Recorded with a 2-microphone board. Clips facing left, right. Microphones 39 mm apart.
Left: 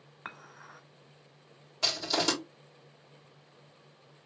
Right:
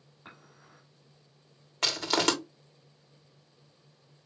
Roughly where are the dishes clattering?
Left.